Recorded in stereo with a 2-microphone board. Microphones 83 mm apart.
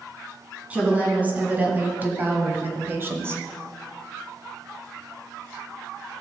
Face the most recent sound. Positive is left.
turn(degrees=-30)  # may be behind; listen again after turning